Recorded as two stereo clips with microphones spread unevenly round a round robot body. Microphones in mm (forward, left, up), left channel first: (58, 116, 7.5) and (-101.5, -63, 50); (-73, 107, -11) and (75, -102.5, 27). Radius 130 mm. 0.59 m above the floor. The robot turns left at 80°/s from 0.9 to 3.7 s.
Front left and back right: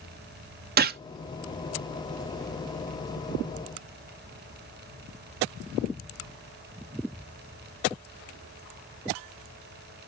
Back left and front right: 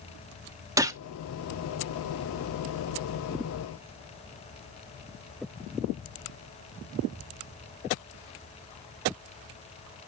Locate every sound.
0.8 s a gunshot: 135° right, 0.8 m; by 1.0 s 145° right, 0.8 m